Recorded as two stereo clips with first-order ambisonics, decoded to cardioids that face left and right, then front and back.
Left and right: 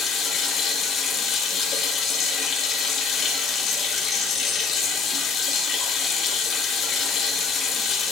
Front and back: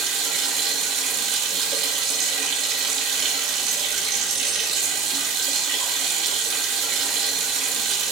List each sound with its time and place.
0.0 s running water: 150° left, 1.9 m